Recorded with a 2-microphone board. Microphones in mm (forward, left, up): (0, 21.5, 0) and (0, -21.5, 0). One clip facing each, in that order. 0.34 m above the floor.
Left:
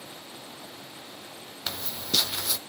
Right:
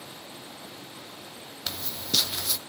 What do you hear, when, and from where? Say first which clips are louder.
1.7 s footsteps: left 1 dB; 10° left (ahead or behind), 0.5 m